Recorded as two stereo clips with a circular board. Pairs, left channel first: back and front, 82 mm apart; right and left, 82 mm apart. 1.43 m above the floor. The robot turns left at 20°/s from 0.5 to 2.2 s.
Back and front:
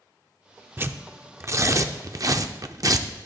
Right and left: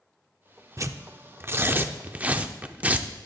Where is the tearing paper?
55° left, 0.5 m; by 3.1 s 25° left, 0.5 m.